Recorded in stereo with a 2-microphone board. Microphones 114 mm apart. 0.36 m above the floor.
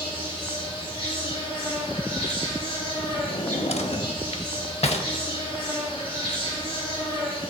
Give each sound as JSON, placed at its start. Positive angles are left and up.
{"t": 0.0, "sound": "an insect", "side_deg": 50, "distance_m": 3.5}
{"t": 3.3, "sound": "a drawer", "side_deg": 65, "distance_m": 0.6}